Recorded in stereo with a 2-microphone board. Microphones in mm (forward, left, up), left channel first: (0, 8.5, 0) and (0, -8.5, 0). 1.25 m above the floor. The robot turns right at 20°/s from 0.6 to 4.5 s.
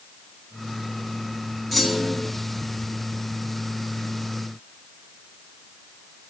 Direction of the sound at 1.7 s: 5° left (ahead or behind).